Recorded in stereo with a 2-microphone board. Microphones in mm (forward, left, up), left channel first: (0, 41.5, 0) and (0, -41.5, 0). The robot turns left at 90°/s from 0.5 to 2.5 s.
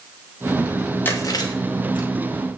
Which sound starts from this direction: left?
Chewing, at 1.1 s.